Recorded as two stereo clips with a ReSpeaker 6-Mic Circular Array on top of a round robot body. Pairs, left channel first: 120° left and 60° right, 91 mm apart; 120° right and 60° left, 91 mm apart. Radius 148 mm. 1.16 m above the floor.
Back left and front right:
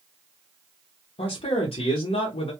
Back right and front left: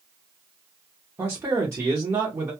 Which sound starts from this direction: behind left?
A man speaking, at 1.2 s.